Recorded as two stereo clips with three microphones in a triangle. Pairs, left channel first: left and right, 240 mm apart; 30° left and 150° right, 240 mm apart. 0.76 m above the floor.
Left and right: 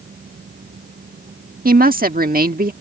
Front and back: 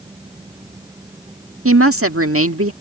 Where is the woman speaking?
140° right.